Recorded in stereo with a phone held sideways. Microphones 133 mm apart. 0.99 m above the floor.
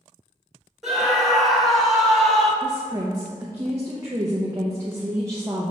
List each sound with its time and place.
0.8 s a scream: centre (ahead or behind), 2.5 m
2.6 s a woman speaking: 20° right (ahead or behind), 0.8 m